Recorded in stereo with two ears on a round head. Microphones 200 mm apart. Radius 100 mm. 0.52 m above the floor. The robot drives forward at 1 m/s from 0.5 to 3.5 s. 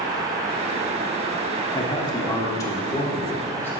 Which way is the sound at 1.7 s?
20° left (ahead or behind).